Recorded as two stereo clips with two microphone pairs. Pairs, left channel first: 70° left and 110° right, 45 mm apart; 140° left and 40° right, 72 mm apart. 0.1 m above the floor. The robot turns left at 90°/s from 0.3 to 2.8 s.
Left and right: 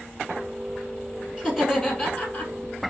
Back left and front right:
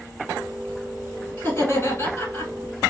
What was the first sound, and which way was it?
Laughter, 165° right.